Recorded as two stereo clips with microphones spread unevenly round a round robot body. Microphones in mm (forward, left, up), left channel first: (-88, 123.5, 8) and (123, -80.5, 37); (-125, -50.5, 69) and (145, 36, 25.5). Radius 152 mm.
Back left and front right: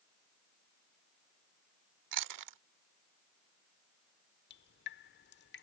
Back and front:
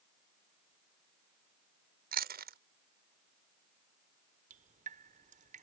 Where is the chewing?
35° right.